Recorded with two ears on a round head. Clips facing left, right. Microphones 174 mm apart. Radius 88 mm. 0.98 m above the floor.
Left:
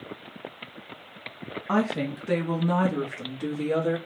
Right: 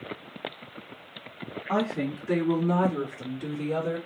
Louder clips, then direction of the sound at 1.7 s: Left 2 dB; 70° left (ahead or behind).